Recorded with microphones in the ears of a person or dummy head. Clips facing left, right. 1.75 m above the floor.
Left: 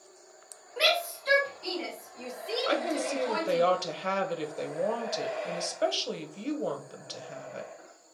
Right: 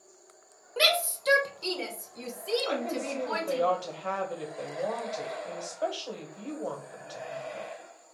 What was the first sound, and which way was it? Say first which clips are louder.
A shout: even; 45° right (ahead or behind).